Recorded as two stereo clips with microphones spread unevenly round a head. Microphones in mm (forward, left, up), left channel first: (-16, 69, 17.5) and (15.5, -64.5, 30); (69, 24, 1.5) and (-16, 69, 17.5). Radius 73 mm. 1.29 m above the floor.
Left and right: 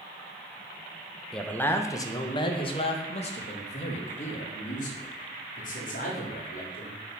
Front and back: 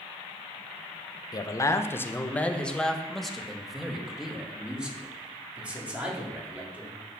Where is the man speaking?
20° left, 1.1 m; by 7.0 s 80° left, 4 m.